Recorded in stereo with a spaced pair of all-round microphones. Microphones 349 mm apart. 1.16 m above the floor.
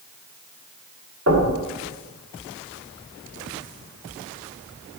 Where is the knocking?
50° right (ahead or behind), 2.5 m.